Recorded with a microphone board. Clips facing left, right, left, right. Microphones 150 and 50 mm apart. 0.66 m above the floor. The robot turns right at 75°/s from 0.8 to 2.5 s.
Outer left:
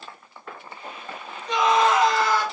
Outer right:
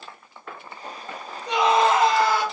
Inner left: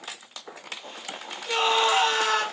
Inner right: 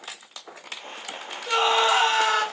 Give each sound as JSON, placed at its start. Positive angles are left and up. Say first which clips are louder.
{"t": 1.5, "sound": "a scream", "louder": "outer right 1 dB, inner right 2 dB", "azimuth_deg": -90, "distance_m": 2.0}